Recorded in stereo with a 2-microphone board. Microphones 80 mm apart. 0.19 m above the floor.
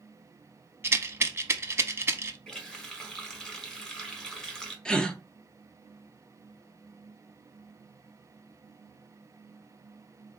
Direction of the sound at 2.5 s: 10° left (ahead or behind).